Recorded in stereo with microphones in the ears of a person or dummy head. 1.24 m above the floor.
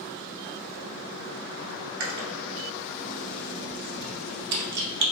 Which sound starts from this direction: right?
Chewing, at 2.0 s.